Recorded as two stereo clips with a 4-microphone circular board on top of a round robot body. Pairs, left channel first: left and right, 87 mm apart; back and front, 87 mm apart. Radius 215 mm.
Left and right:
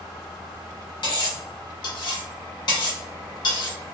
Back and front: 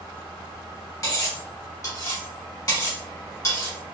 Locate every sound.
1.0 s cutlery clinking: 125° left, 1.5 m